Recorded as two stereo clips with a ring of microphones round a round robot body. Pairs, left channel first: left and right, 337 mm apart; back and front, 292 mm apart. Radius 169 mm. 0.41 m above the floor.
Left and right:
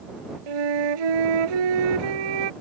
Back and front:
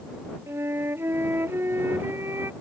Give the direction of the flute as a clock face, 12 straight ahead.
3 o'clock.